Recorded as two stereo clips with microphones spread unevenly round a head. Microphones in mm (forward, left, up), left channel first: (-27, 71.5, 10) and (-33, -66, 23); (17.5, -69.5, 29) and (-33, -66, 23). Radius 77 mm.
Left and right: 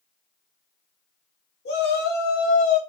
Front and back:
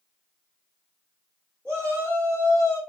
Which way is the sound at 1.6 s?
75° left.